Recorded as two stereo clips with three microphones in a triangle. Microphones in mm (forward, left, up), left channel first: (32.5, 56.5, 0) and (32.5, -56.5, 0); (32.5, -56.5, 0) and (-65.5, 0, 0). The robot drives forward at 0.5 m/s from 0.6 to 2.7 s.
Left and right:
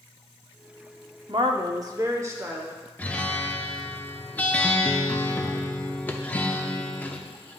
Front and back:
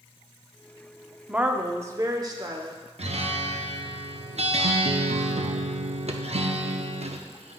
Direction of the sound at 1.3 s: 130° right.